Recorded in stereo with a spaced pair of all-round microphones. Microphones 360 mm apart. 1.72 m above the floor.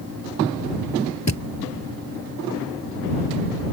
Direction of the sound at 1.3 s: 45° left (ahead or behind).